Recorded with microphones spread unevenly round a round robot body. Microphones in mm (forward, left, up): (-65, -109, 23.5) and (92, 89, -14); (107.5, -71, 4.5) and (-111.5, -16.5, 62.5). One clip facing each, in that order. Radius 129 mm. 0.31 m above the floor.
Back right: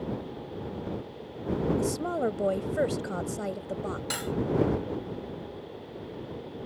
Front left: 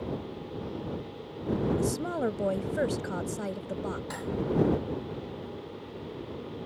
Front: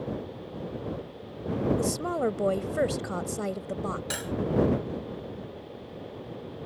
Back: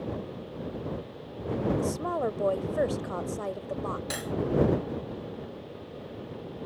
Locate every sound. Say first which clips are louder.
1.8 s a woman speaking: back right 1 dB, front 2 dB; 30° right
4.1 s cutlery clinking: back right 1 dB, even; 90° right